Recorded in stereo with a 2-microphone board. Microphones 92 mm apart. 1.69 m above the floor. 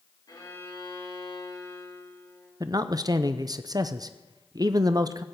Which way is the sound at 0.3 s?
45° left (ahead or behind).